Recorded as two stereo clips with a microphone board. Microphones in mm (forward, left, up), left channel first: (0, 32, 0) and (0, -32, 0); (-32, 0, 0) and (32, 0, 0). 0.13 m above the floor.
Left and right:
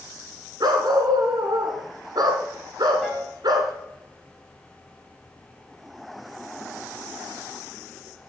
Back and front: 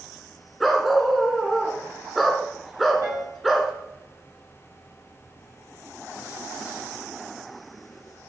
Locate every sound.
0.6 s a dog barking: 85° right, 1.8 m
3.0 s a piano: 5° left, 3.5 m